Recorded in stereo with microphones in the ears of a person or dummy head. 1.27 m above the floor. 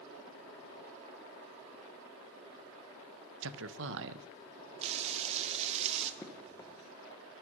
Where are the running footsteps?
15° left (ahead or behind), 1.2 m.